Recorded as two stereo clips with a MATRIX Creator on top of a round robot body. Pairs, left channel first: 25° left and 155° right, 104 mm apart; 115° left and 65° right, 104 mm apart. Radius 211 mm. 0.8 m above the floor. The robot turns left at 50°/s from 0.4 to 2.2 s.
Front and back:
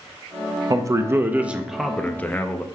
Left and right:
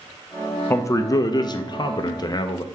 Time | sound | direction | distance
0.7 | a man speaking | 170° left | 0.5 m